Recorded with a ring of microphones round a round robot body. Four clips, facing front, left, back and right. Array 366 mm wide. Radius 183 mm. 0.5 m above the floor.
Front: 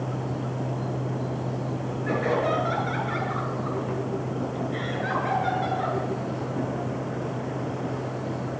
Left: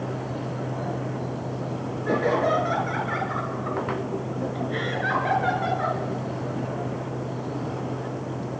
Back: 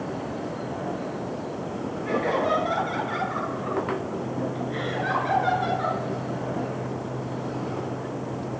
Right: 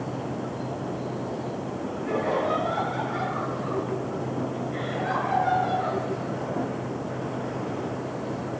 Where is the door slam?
No door slam in this recording.